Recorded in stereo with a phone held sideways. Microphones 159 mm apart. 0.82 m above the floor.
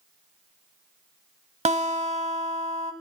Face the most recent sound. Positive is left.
turn(degrees=-45)  # may be behind; listen again after turning